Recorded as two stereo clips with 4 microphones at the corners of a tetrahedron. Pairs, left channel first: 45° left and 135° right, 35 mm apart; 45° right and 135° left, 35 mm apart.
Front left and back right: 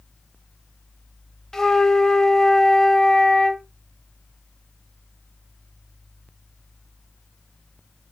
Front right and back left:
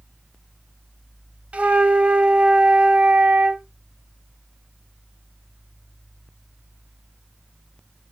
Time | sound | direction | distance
1.5 | a flute | 115° left | 0.6 m